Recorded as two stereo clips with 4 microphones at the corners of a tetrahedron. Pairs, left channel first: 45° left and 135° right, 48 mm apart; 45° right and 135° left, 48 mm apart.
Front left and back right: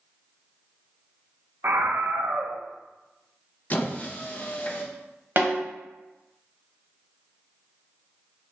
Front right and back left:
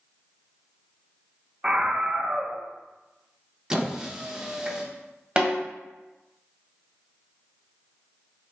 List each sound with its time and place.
1.6 s a scream: 155° right, 0.5 m
3.7 s a squeak: 65° left, 0.6 m
5.4 s a snare drum: 160° right, 1.2 m